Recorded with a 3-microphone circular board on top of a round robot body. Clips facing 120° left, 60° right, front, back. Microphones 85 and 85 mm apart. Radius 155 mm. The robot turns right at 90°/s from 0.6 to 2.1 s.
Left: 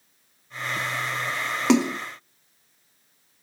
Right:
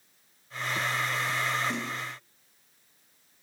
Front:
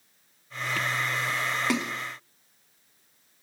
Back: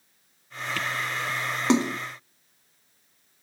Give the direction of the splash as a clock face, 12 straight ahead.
8 o'clock.